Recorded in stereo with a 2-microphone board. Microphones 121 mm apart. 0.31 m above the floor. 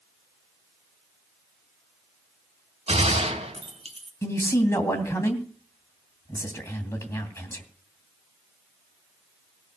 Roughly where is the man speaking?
Left.